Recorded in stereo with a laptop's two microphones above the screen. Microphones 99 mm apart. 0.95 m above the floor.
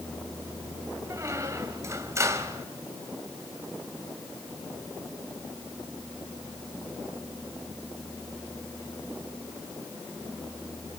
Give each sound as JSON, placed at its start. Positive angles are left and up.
{"t": 1.1, "sound": "a squeak", "side_deg": -30, "distance_m": 2.5}